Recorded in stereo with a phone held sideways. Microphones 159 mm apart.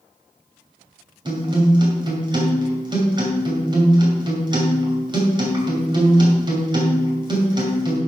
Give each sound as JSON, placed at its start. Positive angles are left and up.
{"t": 1.2, "sound": "a guitar", "side_deg": -30, "distance_m": 2.5}